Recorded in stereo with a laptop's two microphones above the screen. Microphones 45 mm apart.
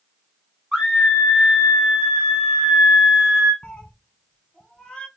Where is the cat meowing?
15° left (ahead or behind), 1.0 m.